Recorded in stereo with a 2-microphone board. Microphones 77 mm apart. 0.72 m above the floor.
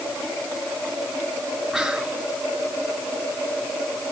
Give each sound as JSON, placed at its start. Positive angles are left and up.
{"t": 1.7, "sound": "whispering", "side_deg": 0, "distance_m": 1.6}